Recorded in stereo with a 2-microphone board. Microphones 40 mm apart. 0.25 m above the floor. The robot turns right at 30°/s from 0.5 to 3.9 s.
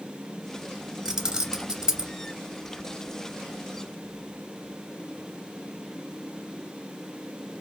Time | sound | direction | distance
1.1 | keys jangling | 15° right (ahead or behind) | 0.6 m